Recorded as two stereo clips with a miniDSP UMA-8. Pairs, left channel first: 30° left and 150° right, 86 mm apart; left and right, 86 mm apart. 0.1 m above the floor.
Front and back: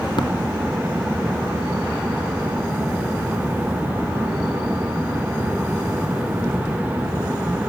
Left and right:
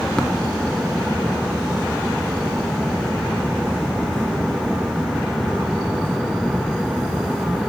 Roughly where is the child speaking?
I don't hear a child speaking.